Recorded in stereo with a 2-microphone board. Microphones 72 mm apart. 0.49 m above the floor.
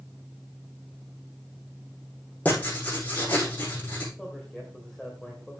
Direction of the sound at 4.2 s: 5° left (ahead or behind).